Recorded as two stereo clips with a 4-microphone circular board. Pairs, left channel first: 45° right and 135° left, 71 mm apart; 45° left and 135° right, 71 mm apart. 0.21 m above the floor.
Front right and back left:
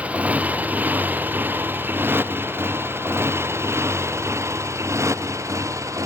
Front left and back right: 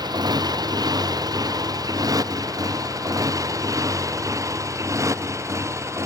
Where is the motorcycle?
155° right; by 6.1 s straight behind.